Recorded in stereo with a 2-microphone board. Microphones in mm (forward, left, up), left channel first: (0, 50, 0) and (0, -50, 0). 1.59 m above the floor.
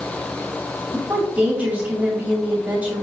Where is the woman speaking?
15° right (ahead or behind), 1.9 m.